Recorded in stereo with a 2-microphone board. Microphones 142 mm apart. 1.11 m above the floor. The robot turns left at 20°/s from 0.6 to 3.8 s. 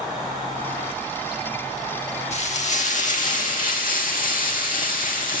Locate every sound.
2.3 s frying: 50° left (ahead or behind), 1.4 m; by 5.4 s 75° left (ahead or behind), 1.4 m